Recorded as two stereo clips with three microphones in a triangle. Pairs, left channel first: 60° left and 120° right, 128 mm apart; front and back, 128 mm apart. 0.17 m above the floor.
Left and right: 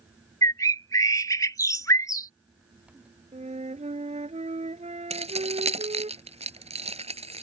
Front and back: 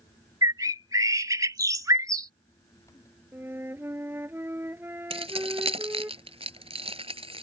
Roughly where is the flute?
Right.